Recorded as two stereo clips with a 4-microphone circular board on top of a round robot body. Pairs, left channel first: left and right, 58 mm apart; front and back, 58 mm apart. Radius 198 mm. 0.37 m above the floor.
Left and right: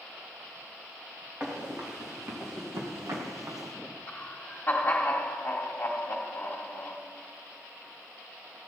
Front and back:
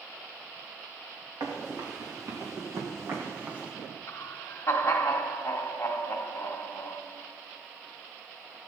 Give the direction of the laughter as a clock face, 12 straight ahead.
11 o'clock.